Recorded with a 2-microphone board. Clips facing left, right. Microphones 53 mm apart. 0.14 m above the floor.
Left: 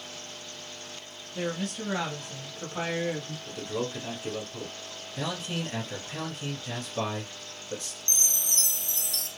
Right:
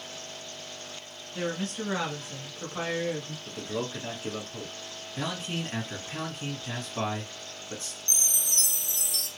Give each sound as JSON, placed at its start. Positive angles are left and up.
{"t": 1.4, "sound": "a woman speaking", "side_deg": -35, "distance_m": 1.6}
{"t": 3.5, "sound": "a man speaking", "side_deg": -35, "distance_m": 1.4}
{"t": 5.2, "sound": "a man speaking", "side_deg": -30, "distance_m": 2.0}
{"t": 8.1, "sound": "a chime", "side_deg": -10, "distance_m": 0.9}